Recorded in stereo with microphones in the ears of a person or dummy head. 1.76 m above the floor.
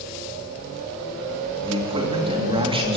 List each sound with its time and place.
1.6 s a man speaking: 25° right (ahead or behind), 3.5 m